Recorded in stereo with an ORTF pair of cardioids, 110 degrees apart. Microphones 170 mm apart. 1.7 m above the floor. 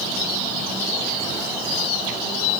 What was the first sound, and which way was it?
Only background noise.